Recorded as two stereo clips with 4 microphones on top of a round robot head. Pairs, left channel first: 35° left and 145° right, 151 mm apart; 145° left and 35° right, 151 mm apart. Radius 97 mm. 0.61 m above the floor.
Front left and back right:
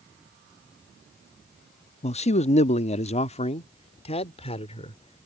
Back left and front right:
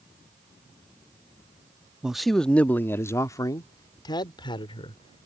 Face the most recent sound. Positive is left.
turn(degrees=90)